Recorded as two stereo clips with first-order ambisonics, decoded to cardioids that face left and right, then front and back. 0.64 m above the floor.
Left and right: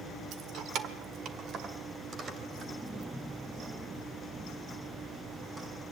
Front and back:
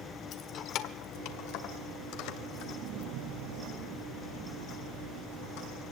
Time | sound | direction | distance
0.3 | keys jangling | 50° right | 1.2 m